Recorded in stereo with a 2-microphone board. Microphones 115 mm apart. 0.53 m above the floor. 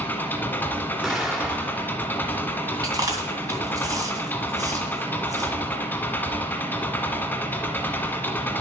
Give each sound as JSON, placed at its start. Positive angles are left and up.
{"t": 0.0, "sound": "an engine running", "side_deg": 15, "distance_m": 1.3}
{"t": 1.0, "sound": "an explosion", "side_deg": -5, "distance_m": 1.5}
{"t": 2.8, "sound": "chewing", "side_deg": -30, "distance_m": 2.5}